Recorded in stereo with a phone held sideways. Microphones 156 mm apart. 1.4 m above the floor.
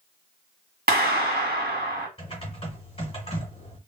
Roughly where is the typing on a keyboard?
Left.